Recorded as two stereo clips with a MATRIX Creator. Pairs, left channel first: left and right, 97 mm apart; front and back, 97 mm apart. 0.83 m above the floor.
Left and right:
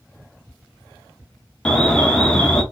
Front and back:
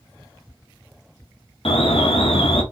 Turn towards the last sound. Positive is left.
turn(degrees=10)